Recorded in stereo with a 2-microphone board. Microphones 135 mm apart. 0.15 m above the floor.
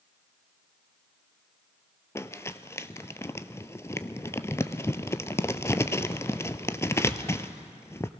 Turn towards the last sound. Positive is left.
turn(degrees=20)  # may be behind; listen again after turning